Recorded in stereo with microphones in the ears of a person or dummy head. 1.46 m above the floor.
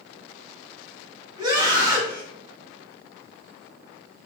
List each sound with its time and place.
1.4 s a scream: 25° right (ahead or behind), 2.5 m